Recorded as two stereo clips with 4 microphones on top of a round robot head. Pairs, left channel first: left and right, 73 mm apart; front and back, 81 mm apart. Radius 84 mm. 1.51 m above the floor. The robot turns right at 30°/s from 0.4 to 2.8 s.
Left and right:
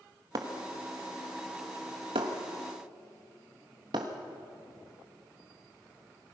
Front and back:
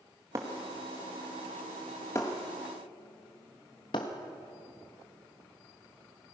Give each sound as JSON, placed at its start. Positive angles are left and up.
{"t": 0.3, "sound": "breaking glass", "azimuth_deg": -120, "distance_m": 1.5}